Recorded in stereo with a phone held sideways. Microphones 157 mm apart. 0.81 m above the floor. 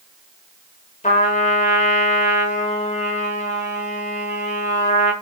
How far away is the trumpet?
About 0.7 m.